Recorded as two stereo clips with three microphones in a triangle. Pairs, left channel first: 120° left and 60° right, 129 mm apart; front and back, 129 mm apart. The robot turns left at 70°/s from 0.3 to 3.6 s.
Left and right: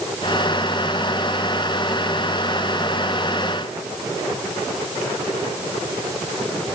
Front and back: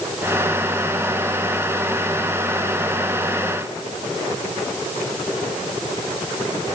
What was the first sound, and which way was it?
Only background noise.